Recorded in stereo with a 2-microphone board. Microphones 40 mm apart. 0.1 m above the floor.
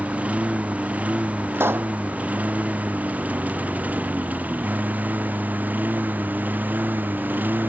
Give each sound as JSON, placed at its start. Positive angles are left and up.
{"t": 0.0, "sound": "a lawn mower", "side_deg": -35}
{"t": 1.5, "sound": "a pop", "side_deg": -70}